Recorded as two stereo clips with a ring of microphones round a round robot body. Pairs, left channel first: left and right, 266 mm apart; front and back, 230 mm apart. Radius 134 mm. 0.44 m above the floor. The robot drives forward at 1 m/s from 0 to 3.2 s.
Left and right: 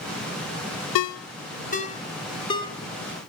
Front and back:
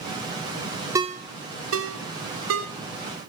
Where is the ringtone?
100° left, 0.5 m; by 2.7 s 165° left, 1.9 m.